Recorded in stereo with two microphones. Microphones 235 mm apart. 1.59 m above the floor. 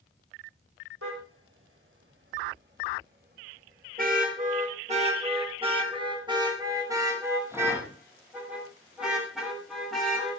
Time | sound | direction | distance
1.0 | a car horn | 65° right (ahead or behind) | 4.5 m